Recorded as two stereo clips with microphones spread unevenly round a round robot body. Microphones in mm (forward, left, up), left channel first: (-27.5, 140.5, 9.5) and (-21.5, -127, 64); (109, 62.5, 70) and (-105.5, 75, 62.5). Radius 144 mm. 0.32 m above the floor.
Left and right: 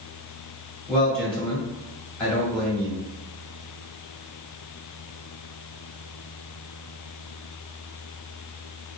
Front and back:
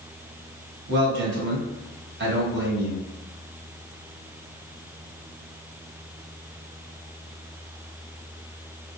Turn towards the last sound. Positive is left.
turn(degrees=170)